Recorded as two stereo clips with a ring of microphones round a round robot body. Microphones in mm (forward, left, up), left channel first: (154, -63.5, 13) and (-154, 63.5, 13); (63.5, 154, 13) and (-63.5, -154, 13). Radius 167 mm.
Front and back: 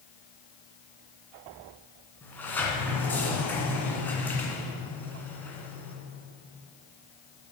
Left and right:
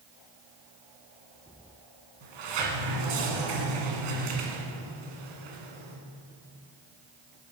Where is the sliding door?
105° right, 1.9 m.